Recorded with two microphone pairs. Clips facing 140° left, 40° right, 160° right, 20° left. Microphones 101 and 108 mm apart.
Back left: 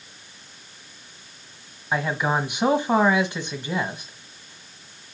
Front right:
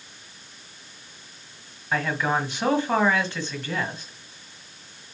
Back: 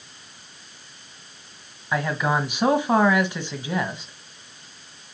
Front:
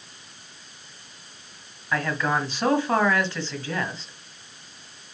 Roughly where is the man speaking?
Behind.